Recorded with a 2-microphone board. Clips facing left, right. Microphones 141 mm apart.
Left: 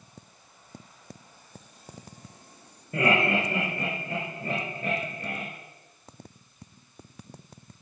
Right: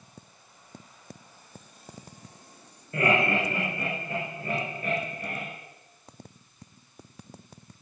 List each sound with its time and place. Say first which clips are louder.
2.9 s laughter: even; 25° left (ahead or behind), 5 m